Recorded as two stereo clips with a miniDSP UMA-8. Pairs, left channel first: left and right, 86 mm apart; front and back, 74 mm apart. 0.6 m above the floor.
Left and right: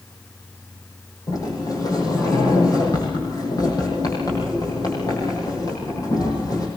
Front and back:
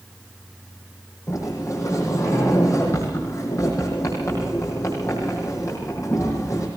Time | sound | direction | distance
1.3 | a sliding door | 45° left | 9 m